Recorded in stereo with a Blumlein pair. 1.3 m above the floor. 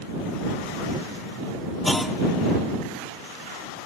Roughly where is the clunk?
Ahead.